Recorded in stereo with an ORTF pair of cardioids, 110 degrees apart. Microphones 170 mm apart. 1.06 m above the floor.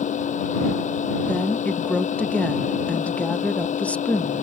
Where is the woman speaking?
10° left.